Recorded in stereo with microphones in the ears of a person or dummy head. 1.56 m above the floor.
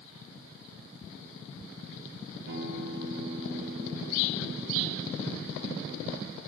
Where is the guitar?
55° right (ahead or behind), 1.6 m.